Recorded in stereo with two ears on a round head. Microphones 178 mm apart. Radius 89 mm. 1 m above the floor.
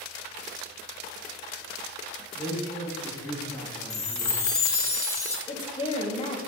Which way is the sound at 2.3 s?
15° left (ahead or behind).